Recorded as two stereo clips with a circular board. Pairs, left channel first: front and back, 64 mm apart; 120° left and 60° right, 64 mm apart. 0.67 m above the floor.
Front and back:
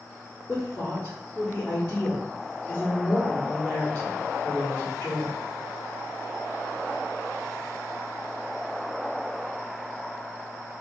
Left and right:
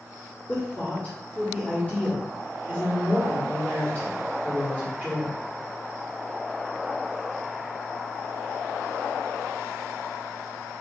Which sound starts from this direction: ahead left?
A woman speaking, at 0.5 s.